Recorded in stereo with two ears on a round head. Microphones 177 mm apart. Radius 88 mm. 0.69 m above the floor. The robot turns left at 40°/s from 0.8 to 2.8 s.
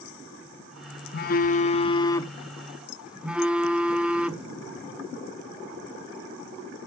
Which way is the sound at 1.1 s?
60° left.